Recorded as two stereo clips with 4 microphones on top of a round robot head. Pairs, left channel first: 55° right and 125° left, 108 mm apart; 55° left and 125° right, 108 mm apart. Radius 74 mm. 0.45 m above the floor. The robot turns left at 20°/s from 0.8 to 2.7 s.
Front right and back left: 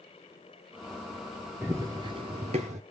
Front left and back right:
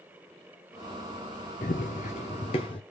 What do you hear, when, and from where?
1.6 s running footsteps: 55° left, 0.7 m; by 2.8 s 100° left, 0.8 m